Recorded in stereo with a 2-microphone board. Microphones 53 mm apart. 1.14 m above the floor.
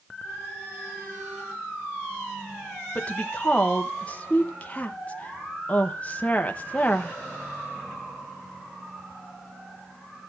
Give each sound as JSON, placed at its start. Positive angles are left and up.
{"t": 3.0, "sound": "a woman speaking", "side_deg": 25, "distance_m": 1.0}